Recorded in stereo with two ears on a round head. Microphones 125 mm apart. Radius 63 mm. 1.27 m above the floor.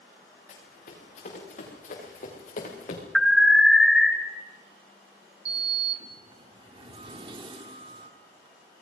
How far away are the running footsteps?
About 9.5 m.